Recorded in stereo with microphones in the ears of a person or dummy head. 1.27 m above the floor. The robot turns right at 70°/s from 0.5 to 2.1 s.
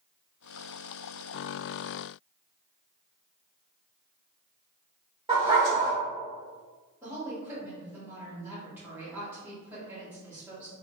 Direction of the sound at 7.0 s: 10° right (ahead or behind).